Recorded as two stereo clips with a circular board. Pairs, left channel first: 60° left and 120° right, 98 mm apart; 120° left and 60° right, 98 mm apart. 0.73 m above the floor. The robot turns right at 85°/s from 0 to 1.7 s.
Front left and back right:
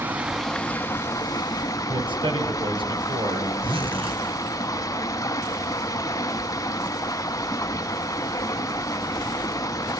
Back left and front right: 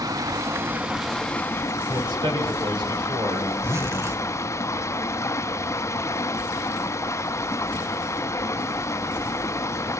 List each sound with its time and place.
0.0 s running water: 65° right, 0.7 m; by 10.0 s 80° left, 0.7 m
1.9 s a man speaking: 95° right, 4 m
3.6 s a zipper: 120° right, 2.5 m